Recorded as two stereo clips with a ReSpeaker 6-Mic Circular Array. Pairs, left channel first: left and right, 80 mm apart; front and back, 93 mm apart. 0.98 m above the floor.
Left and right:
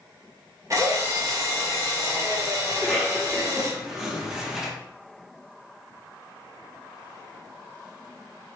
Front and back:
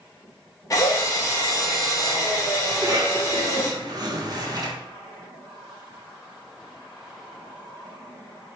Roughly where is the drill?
Ahead right.